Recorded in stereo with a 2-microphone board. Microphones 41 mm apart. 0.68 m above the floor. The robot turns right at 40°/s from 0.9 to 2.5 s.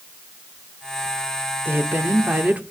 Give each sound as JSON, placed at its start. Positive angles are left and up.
{"t": 1.6, "sound": "a woman speaking", "azimuth_deg": -80, "distance_m": 2.0}